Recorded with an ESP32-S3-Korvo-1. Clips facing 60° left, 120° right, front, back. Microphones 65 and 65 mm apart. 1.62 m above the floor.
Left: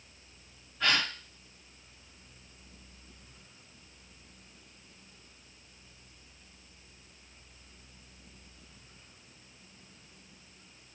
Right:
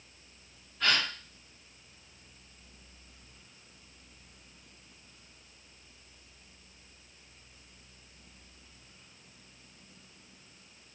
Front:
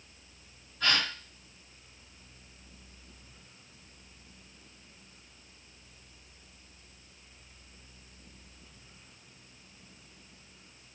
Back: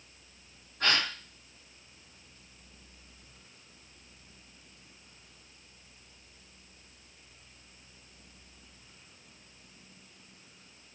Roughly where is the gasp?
Behind left.